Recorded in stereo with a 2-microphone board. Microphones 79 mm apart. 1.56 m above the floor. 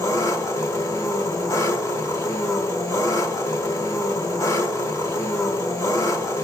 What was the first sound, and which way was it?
An engine running, 45° left (ahead or behind).